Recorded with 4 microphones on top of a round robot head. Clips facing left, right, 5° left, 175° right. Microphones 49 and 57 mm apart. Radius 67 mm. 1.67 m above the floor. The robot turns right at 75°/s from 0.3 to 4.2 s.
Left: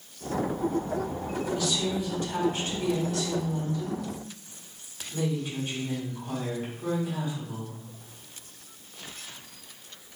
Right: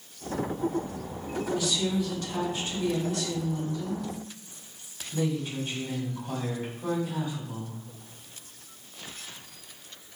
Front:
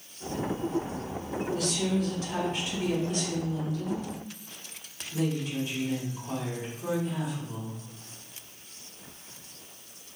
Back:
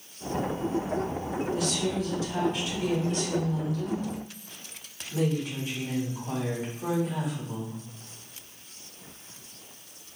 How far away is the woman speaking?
About 1.9 m.